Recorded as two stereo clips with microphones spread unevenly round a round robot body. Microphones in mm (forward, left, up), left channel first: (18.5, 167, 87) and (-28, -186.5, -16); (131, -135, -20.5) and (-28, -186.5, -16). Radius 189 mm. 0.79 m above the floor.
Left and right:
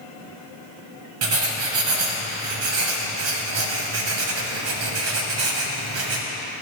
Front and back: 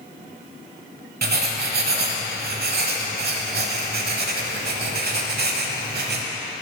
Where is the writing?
155° right, 1.1 m.